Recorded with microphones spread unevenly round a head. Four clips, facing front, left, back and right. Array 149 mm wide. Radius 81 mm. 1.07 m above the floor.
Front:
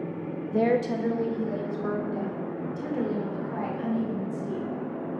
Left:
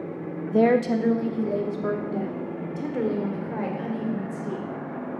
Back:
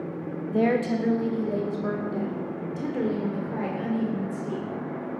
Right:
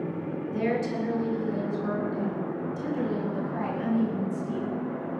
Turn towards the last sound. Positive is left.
turn(degrees=120)